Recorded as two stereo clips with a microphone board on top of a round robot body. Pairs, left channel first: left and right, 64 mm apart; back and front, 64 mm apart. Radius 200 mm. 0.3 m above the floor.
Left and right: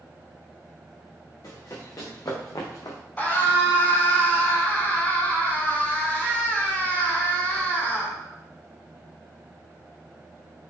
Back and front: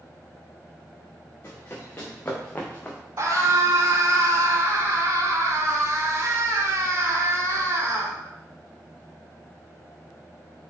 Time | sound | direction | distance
1.4 | running footsteps | 125° left | 2.5 m
3.2 | a scream | 30° left | 3 m